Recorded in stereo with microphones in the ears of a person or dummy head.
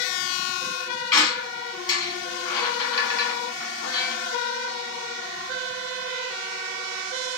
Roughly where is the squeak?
Left.